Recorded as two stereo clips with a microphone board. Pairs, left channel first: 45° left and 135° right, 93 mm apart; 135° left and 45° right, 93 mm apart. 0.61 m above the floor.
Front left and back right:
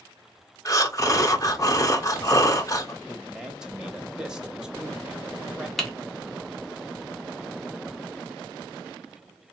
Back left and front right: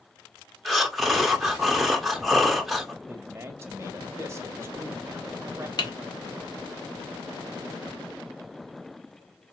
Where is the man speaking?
60° right, 1.1 m.